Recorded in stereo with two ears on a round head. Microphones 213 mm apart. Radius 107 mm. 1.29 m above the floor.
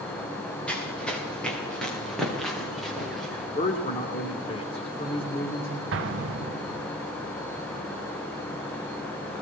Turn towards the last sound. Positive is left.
turn(degrees=-50)  # may be behind; listen again after turning